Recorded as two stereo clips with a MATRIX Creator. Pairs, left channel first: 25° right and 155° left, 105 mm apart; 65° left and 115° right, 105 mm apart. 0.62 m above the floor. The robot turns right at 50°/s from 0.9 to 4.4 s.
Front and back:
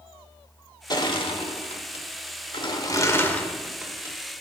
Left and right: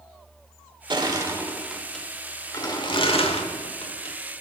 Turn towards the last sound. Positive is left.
turn(degrees=105)